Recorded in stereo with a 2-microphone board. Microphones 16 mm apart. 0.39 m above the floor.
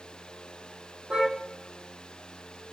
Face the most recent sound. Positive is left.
turn(degrees=-80)